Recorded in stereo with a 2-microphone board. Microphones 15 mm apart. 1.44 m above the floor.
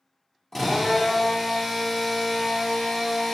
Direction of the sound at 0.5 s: 25° left (ahead or behind).